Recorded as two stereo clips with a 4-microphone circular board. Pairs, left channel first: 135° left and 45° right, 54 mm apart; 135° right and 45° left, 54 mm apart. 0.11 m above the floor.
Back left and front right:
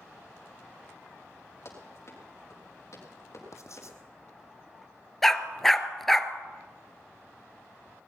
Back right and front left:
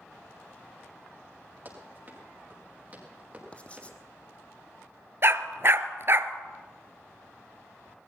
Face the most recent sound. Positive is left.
turn(degrees=50)